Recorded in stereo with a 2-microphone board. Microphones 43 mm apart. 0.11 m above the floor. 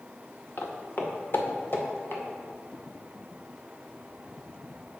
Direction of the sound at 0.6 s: 65° left (ahead or behind).